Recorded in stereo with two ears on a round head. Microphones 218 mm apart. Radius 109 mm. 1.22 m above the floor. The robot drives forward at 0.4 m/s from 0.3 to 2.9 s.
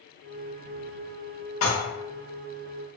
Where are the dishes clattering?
60° left (ahead or behind), 0.8 m; by 1.8 s 55° left (ahead or behind), 0.8 m.